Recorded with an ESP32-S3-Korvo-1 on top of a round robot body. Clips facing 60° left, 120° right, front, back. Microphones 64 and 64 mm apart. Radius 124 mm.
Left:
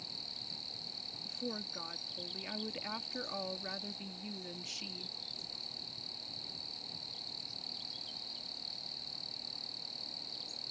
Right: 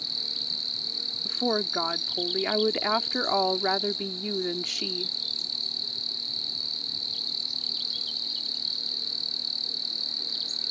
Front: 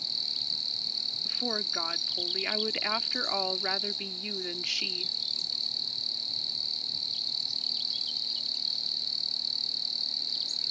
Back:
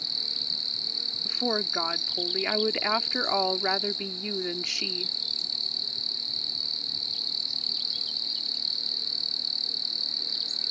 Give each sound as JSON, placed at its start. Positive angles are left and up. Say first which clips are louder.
{"t": 0.0, "sound": "an insect", "louder": "right 10 dB, back 3 dB", "azimuth_deg": -135}
{"t": 1.2, "sound": "a woman speaking", "louder": "right 15 dB, back 6 dB", "azimuth_deg": -115}